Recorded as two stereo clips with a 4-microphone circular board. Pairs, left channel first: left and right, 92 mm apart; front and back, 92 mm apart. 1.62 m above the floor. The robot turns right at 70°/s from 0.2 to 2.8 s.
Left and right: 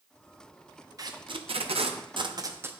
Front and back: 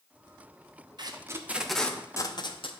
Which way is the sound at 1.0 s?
140° right.